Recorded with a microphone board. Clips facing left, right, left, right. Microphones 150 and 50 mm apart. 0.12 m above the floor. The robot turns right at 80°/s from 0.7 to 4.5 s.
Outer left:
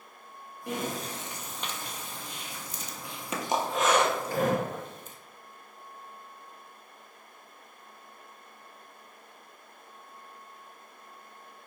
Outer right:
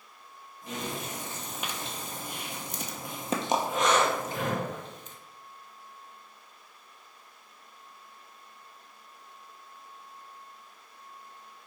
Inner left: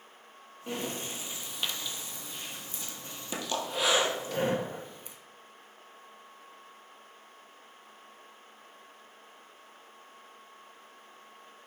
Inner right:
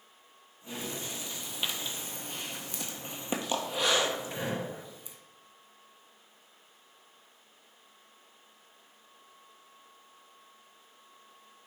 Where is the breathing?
65° left (ahead or behind), 0.8 m; by 5.2 s 55° left (ahead or behind), 0.8 m.